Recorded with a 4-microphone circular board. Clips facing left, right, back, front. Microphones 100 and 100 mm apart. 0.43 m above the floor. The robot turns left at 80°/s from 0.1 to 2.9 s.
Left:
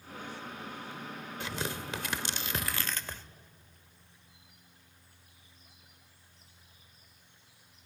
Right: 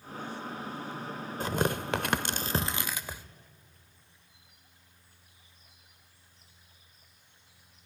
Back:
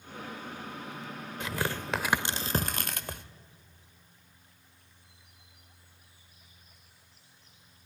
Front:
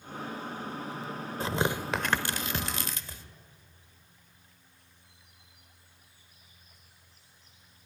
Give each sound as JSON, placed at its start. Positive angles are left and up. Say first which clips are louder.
{"t": 1.4, "sound": "tearing paper", "louder": "right 8 dB, front 4 dB", "azimuth_deg": -45, "distance_m": 0.8}